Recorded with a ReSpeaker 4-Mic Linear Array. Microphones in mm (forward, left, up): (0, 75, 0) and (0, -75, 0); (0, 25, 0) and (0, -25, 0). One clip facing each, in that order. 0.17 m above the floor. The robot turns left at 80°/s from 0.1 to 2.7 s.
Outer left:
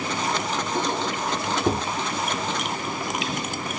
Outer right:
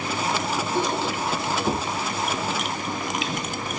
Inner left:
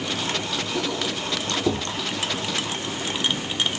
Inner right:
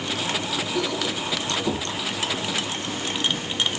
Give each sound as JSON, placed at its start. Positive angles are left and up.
{"t": 0.8, "sound": "a squeak", "side_deg": 15, "distance_m": 4.5}